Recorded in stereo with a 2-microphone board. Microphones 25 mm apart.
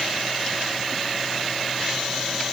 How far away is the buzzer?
No buzzer in this recording.